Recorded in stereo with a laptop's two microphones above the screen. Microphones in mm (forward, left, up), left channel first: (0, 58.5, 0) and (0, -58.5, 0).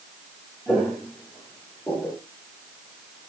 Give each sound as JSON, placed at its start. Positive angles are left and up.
{"t": 0.7, "sound": "footsteps", "side_deg": 5, "distance_m": 1.1}